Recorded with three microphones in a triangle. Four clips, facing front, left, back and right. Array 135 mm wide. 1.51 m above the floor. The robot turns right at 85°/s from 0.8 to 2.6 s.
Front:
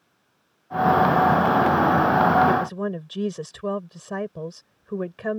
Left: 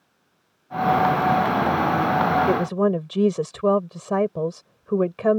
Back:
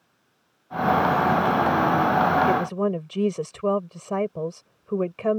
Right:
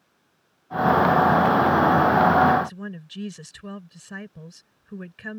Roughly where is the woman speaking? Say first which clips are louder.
Left 3 dB, even; left.